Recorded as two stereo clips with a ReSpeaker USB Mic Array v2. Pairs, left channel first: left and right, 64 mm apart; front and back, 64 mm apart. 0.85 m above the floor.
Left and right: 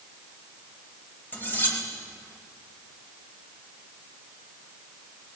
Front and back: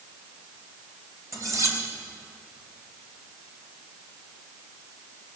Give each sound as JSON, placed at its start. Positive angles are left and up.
{"t": 1.3, "sound": "cutlery clinking", "azimuth_deg": 150, "distance_m": 2.5}